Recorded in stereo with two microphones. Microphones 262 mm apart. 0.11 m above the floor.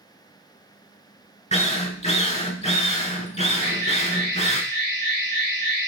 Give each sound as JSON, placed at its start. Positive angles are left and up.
{"t": 1.5, "sound": "a drill", "side_deg": 25, "distance_m": 0.8}
{"t": 3.6, "sound": "an alarm", "side_deg": 40, "distance_m": 2.0}